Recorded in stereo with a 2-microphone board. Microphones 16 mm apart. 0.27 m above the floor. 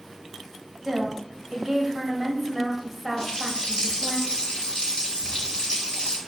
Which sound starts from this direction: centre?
A woman speaking, at 0.8 s.